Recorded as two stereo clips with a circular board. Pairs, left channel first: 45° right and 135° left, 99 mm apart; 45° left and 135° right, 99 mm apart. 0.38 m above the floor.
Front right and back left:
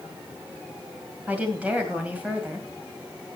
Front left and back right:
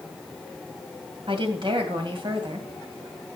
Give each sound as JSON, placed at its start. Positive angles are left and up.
{"t": 1.3, "sound": "a woman speaking", "azimuth_deg": -150, "distance_m": 2.5}